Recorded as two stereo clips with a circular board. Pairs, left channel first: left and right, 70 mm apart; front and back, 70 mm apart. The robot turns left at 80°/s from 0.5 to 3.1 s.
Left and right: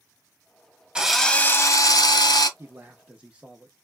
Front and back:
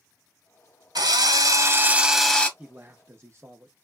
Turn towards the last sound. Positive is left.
turn(degrees=-155)